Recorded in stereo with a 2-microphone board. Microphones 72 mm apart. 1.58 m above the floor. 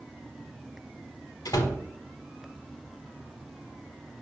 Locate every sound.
1.4 s a door slam: 65° left (ahead or behind), 1.1 m